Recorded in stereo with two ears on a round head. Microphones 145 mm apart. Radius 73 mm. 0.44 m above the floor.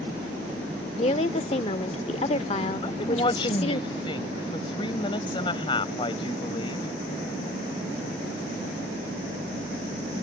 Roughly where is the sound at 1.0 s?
Left.